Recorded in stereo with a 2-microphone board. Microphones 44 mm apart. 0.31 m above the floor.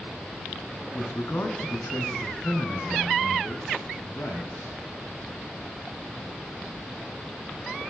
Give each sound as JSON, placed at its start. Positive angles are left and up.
{"t": 0.9, "sound": "a man speaking", "side_deg": 70, "distance_m": 2.5}